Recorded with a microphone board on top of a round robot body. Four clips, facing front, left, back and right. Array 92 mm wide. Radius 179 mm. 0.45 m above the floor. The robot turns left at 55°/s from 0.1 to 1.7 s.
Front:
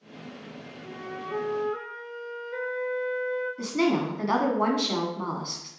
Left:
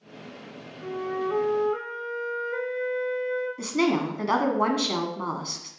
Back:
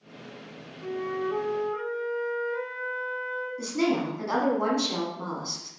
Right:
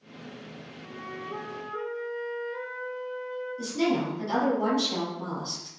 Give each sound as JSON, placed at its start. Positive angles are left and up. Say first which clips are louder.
{"t": 0.8, "sound": "a flute", "louder": "left 12 dB, back 8 dB", "azimuth_deg": 120, "distance_m": 0.5}
{"t": 3.6, "sound": "a woman speaking", "louder": "left 1 dB, even", "azimuth_deg": 70, "distance_m": 1.7}